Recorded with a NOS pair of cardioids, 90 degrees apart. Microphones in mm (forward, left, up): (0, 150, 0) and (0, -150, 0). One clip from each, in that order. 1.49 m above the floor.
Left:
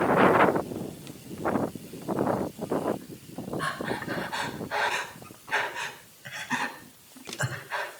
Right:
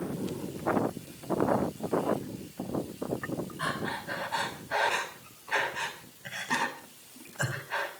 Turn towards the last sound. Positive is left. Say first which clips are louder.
# left 3 dB
turn(degrees=0)